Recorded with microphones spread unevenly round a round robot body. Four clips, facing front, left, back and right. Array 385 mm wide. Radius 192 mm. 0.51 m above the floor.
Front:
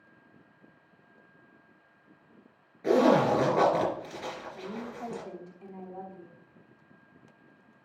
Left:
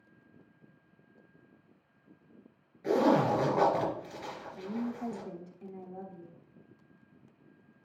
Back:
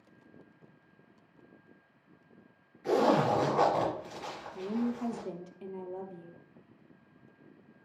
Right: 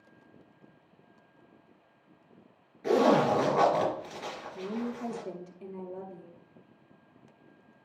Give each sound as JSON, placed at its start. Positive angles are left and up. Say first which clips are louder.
{"t": 2.8, "sound": "a zipper", "louder": "right 2 dB, front 4 dB", "azimuth_deg": -30, "distance_m": 4.0}
{"t": 4.5, "sound": "a woman speaking", "louder": "right 1 dB, back 5 dB", "azimuth_deg": -165, "distance_m": 0.9}